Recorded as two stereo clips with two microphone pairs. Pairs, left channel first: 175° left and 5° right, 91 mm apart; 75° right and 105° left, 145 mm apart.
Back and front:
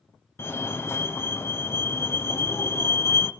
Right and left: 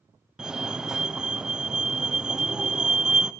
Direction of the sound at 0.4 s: 170° right.